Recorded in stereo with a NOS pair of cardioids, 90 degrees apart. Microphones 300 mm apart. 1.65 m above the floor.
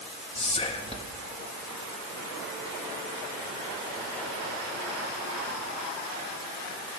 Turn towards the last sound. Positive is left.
turn(degrees=20)